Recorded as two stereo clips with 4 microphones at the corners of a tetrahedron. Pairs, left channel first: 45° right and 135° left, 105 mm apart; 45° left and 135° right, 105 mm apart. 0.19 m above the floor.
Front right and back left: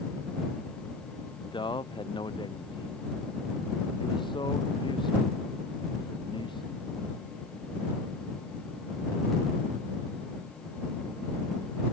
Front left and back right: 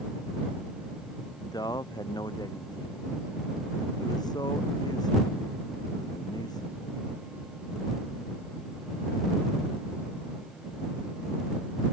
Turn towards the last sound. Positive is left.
turn(degrees=-5)